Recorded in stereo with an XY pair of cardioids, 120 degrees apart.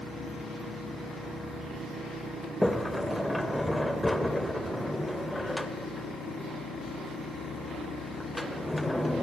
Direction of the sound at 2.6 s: 5° left.